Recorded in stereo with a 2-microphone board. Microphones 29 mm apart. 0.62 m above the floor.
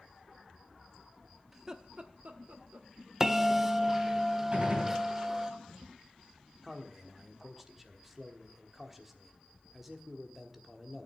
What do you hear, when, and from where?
1.5 s laughter: 10° right (ahead or behind), 0.8 m; by 2.9 s 60° right (ahead or behind), 1.9 m
3.2 s a bell: 15° right (ahead or behind), 0.5 m
4.5 s a gunshot: 35° right (ahead or behind), 3.5 m
6.6 s a man speaking: 5° right (ahead or behind), 1.2 m